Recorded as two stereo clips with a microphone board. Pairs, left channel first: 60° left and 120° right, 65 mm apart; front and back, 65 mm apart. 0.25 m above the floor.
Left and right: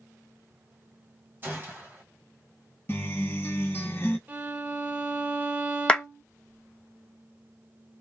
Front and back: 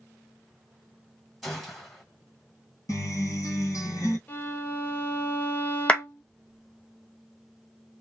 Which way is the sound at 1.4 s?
90° right.